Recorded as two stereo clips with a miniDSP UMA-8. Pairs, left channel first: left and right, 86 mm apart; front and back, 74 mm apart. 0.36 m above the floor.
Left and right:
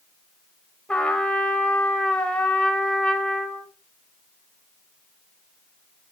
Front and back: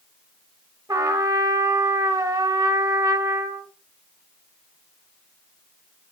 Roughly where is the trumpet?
Behind.